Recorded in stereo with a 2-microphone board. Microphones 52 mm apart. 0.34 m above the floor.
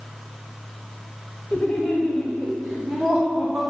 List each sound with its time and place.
1.5 s laughter: 30° left (ahead or behind), 1.2 m; by 3.6 s 10° right (ahead or behind), 2 m